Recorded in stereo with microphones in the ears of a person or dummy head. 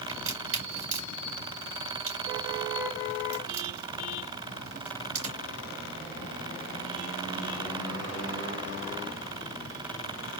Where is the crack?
35° right (ahead or behind), 3 m.